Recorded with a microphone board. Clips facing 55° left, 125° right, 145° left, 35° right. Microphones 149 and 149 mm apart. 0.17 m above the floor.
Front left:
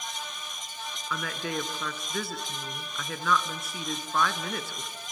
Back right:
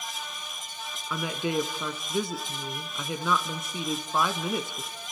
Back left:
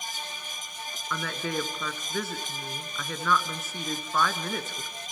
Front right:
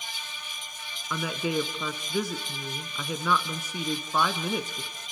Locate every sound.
1.1 s a woman speaking: 90° right, 1.1 m